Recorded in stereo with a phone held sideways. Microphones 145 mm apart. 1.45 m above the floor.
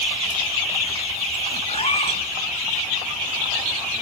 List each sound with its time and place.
1.7 s a cat meowing: 45° left (ahead or behind), 2.0 m